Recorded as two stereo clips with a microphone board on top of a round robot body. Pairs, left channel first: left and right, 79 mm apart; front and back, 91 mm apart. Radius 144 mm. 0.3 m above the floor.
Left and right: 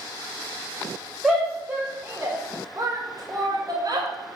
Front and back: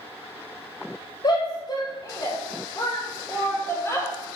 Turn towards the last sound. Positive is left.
turn(degrees=-65)